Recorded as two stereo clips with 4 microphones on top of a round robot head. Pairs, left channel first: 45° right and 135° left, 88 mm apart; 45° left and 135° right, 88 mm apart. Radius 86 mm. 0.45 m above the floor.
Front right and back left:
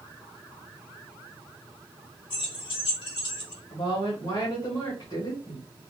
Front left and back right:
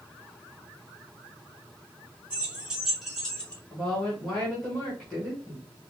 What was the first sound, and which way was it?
Keys jangling, 60° right.